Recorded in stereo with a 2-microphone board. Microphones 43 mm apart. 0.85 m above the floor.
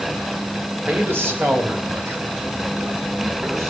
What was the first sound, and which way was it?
A man speaking, 55° right (ahead or behind).